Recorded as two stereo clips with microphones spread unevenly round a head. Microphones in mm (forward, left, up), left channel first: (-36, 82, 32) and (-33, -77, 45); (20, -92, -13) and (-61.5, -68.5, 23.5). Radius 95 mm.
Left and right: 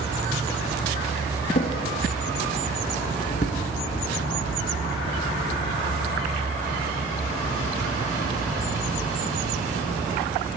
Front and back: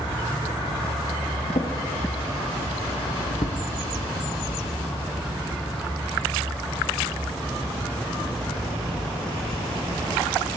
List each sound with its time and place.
1.5 s a drawer: 40° left, 0.6 m